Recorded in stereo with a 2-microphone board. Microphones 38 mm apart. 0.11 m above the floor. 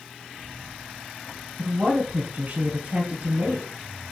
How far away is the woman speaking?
About 1.5 m.